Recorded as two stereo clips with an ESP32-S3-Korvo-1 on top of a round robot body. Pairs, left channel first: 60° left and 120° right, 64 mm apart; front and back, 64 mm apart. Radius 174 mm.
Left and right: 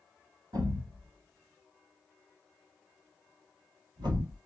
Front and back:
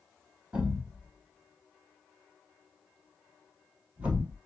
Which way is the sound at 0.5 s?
110° right.